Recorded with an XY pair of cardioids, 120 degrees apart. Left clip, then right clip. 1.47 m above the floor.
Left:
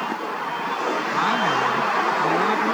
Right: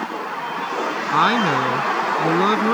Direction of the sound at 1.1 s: 45° right.